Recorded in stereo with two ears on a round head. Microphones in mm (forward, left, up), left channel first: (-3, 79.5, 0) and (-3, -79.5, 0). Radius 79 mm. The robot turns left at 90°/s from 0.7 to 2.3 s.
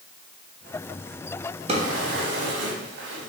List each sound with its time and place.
1.7 s a drawer: 35° right (ahead or behind), 0.9 m; by 3.3 s 70° right (ahead or behind), 0.9 m